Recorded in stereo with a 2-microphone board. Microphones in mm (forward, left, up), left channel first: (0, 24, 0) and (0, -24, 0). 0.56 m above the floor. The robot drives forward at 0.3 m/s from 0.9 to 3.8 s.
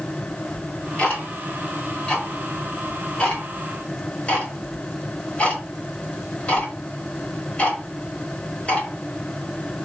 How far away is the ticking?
About 1.4 m.